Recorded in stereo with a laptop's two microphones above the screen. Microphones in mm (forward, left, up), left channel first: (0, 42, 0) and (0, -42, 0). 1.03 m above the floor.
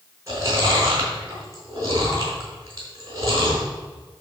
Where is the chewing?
35° right (ahead or behind), 4 m.